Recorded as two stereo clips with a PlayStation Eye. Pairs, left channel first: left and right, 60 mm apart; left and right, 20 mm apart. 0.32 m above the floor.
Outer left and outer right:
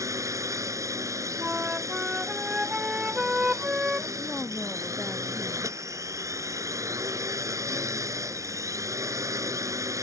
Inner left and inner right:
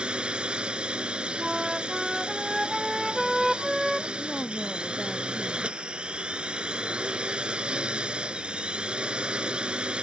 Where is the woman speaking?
10° left (ahead or behind).